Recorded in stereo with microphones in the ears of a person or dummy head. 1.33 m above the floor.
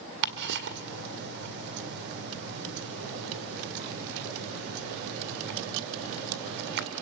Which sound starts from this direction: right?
Ticking, at 0.2 s.